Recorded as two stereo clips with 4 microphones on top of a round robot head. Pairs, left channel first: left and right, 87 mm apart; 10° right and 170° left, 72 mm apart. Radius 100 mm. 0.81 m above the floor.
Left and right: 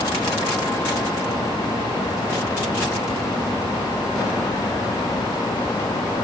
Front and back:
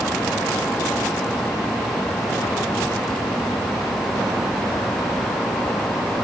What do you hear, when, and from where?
Only background noise.